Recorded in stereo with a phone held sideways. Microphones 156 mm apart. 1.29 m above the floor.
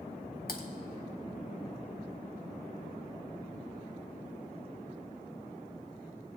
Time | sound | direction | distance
0.5 | typing on a keyboard | 80° left | 1.6 m